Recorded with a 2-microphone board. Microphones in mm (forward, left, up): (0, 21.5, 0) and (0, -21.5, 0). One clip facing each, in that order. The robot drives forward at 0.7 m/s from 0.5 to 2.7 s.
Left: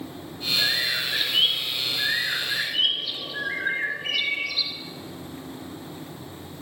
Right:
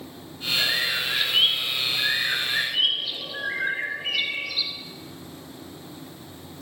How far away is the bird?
About 1.9 m.